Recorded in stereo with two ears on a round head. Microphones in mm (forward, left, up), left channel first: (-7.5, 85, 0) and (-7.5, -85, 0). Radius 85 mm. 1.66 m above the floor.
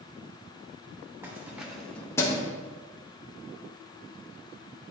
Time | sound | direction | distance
1.2 | keys jangling | 10° right (ahead or behind) | 1.3 m